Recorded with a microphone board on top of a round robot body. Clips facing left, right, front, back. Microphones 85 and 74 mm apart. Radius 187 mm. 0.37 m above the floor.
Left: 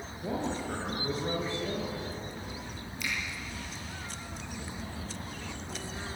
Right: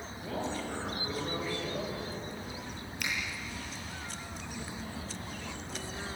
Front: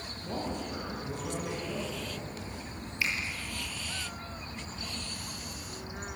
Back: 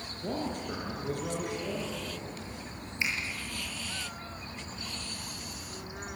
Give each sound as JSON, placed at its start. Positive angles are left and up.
{"t": 0.2, "sound": "a man speaking", "azimuth_deg": 155, "distance_m": 8.5}
{"t": 3.0, "sound": "a finger snap", "azimuth_deg": -115, "distance_m": 9.5}